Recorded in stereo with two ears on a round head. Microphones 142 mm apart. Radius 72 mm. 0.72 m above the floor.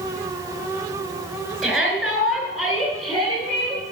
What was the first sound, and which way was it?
A shout, centre (ahead or behind).